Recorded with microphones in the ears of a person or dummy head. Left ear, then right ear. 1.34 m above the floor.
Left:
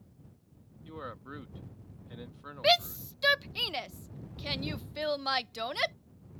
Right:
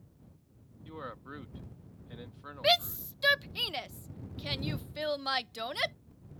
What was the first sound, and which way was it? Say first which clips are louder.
A man speaking: even; 10° right (ahead or behind).